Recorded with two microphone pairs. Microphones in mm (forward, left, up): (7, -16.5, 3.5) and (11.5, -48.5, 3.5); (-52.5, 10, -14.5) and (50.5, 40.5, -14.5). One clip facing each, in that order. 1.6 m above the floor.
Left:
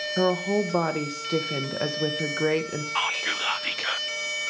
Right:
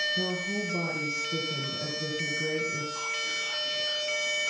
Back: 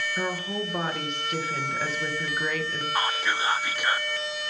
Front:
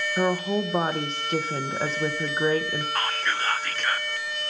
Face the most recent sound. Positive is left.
turn(degrees=115)